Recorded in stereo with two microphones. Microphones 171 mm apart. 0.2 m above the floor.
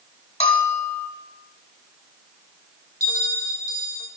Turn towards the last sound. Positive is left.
turn(degrees=-20)  # may be behind; listen again after turning